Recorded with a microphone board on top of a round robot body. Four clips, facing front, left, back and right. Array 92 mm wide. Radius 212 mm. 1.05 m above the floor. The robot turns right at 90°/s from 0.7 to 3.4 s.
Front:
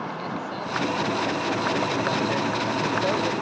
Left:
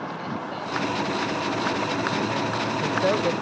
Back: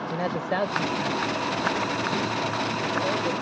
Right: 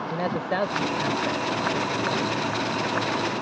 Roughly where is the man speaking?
Behind right.